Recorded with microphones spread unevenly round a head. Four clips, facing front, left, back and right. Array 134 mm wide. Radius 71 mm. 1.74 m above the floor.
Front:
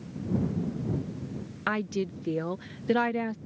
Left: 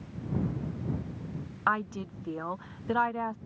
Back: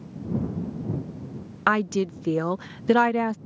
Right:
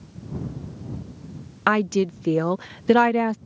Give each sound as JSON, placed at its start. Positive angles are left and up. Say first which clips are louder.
{"t": 1.7, "sound": "a woman speaking", "louder": "right 10 dB, back 7 dB", "azimuth_deg": -100}